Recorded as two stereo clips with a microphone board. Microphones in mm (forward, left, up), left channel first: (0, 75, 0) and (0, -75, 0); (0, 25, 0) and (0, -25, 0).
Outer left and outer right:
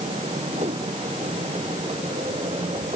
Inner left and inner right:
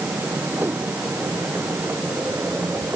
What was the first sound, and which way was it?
A whoosh, 45° right (ahead or behind).